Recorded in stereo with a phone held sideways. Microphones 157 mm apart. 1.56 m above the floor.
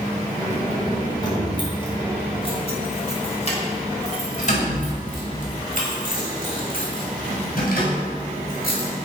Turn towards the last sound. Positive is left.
turn(degrees=70)  # may be behind; listen again after turning